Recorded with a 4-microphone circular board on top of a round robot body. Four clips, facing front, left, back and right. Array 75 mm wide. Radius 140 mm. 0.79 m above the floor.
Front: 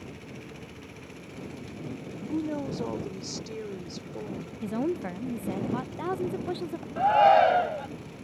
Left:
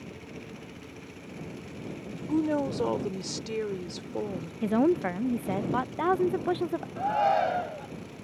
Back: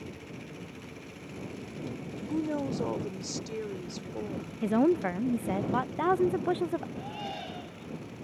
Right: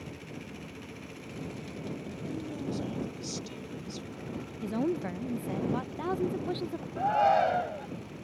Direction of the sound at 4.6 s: 130° left.